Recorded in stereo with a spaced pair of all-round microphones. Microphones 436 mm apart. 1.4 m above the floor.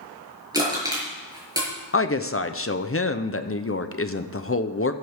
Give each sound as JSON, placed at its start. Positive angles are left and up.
{"t": 0.5, "sound": "crushing", "side_deg": -10, "distance_m": 6.0}
{"t": 1.9, "sound": "a woman speaking", "side_deg": 30, "distance_m": 0.7}